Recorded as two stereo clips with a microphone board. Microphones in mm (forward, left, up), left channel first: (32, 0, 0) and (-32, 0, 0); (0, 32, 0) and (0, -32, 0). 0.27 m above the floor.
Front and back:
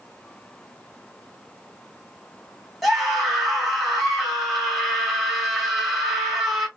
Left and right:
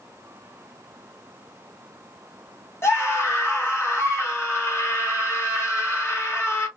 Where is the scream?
85° left, 1.9 m.